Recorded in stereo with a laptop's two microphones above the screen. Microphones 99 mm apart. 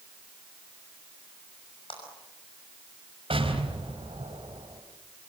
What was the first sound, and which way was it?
A clap, 65° left (ahead or behind).